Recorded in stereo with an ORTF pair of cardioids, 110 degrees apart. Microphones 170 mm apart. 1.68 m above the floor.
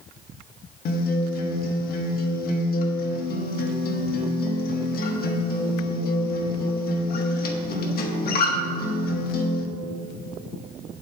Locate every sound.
0.8 s a guitar: 65° left, 1.3 m